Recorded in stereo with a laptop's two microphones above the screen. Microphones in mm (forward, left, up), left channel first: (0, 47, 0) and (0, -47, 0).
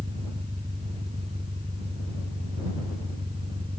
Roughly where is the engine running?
Right.